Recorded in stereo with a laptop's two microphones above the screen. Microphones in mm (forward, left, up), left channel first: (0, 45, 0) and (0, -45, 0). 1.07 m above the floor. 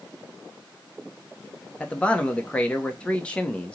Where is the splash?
I don't hear a splash.